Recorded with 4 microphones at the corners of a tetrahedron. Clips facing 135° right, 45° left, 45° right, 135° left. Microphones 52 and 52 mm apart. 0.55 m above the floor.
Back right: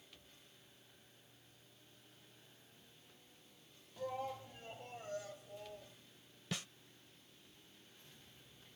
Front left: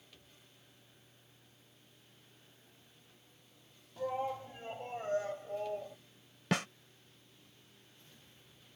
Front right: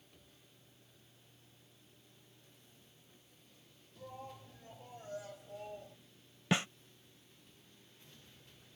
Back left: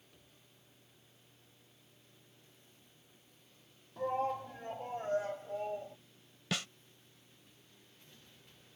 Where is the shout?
115° left; by 6.0 s 75° left.